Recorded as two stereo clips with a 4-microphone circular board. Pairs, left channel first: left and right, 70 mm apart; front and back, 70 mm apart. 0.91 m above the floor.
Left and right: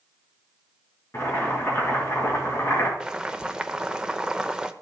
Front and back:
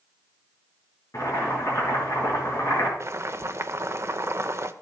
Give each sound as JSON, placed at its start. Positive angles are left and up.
{"t": 1.1, "sound": "boiling", "azimuth_deg": 40, "distance_m": 4.0}
{"t": 3.0, "sound": "boiling", "azimuth_deg": -165, "distance_m": 0.7}